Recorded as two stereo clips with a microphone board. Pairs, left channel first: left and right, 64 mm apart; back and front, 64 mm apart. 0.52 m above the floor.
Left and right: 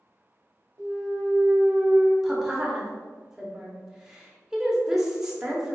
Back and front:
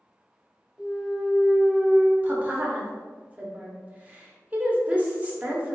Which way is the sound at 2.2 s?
20° right.